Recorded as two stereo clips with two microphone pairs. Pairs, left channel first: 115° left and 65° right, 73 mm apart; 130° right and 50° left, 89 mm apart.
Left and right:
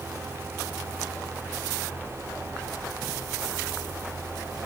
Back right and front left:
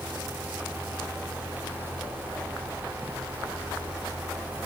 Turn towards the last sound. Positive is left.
No sound to turn to.